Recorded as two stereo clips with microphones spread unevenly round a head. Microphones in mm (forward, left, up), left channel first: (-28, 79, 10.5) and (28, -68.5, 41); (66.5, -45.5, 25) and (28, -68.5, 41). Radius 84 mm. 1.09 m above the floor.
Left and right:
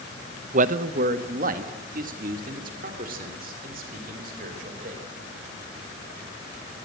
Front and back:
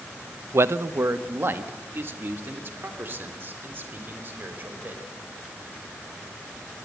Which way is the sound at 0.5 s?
115° right.